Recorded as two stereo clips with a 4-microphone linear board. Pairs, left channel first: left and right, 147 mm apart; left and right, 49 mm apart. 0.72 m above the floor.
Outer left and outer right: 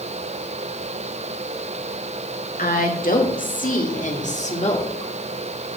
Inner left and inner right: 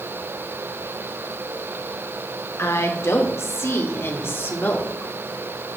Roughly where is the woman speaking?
Left.